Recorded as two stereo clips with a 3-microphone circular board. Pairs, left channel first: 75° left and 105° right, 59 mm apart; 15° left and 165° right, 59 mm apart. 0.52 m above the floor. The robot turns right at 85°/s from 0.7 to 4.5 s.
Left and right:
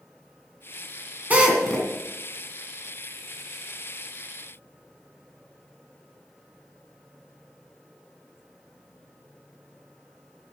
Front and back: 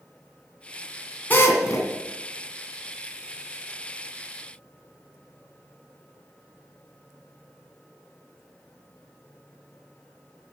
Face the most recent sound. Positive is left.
turn(degrees=-130)